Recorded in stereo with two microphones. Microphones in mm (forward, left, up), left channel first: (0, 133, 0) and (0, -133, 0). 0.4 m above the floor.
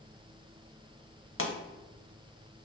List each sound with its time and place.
1.4 s a pop: 50° left (ahead or behind), 0.8 m